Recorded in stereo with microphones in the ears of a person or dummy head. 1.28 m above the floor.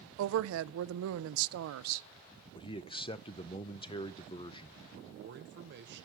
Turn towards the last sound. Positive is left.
turn(degrees=-55)  # may be behind; listen again after turning